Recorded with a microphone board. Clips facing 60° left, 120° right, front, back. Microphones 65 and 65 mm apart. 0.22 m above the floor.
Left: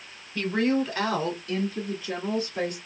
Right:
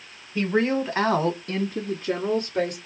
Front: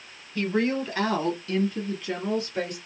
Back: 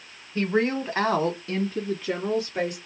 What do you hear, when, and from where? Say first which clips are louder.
0.3 s a woman speaking: right 2 dB, back 1 dB; 175° right, 1.2 m; by 2.8 s 110° right, 2.0 m